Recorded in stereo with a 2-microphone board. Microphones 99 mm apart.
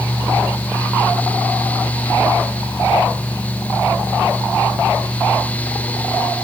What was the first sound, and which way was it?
Only background noise.